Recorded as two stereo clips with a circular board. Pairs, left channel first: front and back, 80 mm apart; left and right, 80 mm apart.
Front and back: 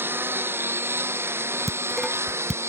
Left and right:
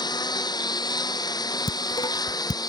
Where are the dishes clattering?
95° left.